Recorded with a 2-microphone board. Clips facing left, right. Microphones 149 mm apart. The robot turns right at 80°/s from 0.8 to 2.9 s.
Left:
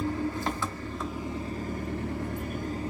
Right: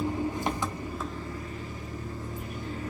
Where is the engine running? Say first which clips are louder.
Even; 20° right, 0.7 m; by 2.9 s 150° left, 0.7 m.